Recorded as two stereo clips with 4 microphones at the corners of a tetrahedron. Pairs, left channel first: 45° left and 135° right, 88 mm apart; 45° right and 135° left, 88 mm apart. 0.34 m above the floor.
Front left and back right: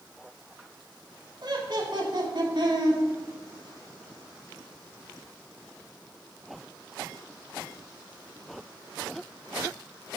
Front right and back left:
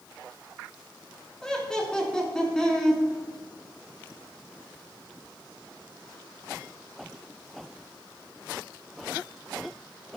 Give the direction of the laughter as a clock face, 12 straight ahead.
4 o'clock.